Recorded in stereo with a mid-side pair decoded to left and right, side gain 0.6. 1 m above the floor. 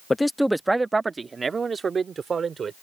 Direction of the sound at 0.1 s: 15° left.